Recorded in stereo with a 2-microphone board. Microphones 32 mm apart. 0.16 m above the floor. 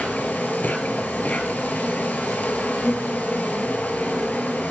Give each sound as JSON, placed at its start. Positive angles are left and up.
{"t": 0.0, "sound": "an insect", "side_deg": 60, "distance_m": 0.7}